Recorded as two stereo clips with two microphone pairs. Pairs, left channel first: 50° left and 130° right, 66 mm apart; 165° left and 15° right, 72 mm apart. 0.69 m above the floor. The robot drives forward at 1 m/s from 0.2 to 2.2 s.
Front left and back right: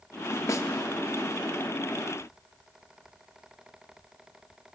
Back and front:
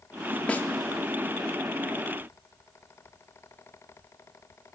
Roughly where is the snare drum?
Left.